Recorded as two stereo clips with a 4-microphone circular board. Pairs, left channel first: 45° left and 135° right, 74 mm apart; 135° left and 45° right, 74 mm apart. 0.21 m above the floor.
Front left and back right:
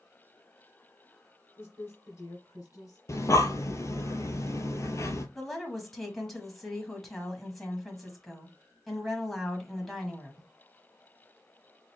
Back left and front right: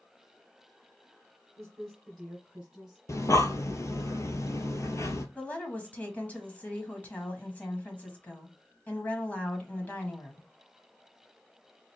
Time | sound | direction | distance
1.6 | a woman speaking | 50° left | 1.2 m
3.1 | breathing | 90° left | 0.7 m
5.3 | a woman speaking | 130° left | 1.1 m